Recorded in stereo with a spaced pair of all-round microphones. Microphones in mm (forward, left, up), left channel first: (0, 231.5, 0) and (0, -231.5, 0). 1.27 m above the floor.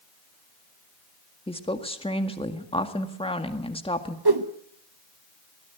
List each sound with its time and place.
1.5 s a woman speaking: 10° left (ahead or behind), 1.8 m
4.2 s a whoosh: 50° right (ahead or behind), 1.2 m